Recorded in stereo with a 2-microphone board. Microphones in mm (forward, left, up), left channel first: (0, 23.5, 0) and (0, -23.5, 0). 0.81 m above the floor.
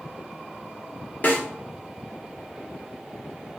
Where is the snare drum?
40° left (ahead or behind), 0.7 m.